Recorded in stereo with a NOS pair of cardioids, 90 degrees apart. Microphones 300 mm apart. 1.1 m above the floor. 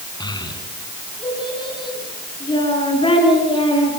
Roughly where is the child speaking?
Ahead.